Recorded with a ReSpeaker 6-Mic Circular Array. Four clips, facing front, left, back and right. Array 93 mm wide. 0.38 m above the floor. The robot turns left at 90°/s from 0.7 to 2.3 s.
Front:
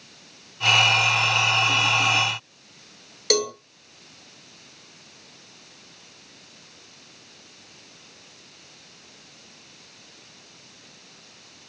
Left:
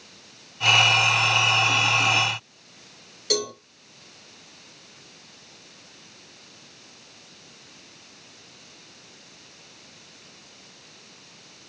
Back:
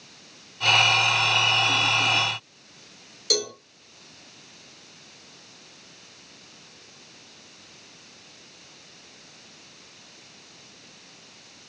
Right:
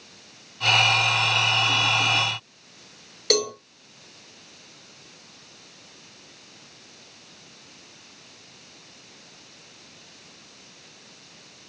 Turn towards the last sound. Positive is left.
turn(degrees=-35)